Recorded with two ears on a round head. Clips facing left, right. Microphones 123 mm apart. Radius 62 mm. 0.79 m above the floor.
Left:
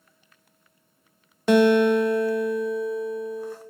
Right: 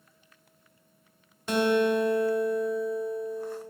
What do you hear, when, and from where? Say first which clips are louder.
1.5 s a guitar: left 7 dB; 50° left (ahead or behind), 0.6 m